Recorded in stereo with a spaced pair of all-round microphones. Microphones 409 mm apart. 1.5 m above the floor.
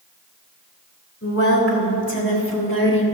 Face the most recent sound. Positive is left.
turn(degrees=55)  # may be behind; listen again after turning